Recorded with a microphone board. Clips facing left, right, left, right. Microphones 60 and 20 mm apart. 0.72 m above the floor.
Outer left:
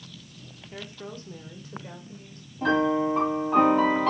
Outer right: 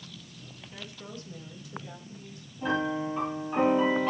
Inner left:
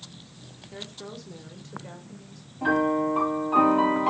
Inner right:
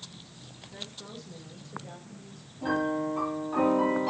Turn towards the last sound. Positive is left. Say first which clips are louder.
# outer left 6 dB, inner left 5 dB
turn(degrees=85)